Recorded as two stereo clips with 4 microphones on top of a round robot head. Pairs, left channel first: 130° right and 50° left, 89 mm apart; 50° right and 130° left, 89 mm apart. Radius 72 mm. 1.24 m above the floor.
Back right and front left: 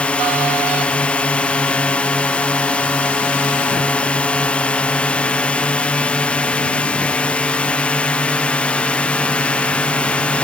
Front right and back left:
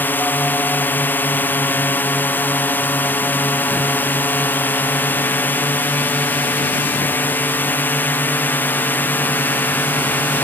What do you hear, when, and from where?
0.0 s a drone: 75° right